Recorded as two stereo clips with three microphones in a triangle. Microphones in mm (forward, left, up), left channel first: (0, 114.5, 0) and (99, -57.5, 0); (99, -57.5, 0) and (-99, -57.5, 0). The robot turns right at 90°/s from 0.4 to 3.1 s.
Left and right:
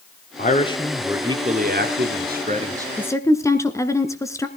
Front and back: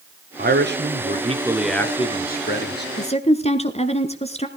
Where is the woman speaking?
35° left, 1.7 m; by 4.5 s 50° left, 1.7 m.